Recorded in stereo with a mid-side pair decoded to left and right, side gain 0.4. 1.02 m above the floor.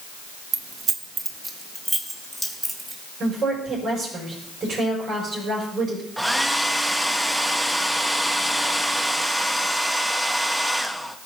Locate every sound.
0.5 s keys jangling: 60° right, 0.7 m; by 3.0 s 10° right, 3 m
3.2 s a woman speaking: 45° right, 5 m
6.2 s a hair dryer: 5° right, 0.8 m